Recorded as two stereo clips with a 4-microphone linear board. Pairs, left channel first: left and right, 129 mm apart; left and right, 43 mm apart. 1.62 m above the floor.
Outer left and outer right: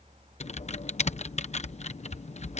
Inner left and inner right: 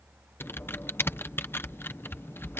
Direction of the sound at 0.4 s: 60° left (ahead or behind).